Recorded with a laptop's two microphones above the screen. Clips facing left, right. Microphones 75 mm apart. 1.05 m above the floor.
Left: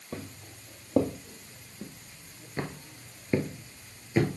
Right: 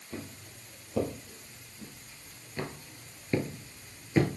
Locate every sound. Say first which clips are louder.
0.1 s footsteps: left 2 dB; 50° left (ahead or behind), 2.0 m; by 4.3 s centre (ahead or behind), 1.2 m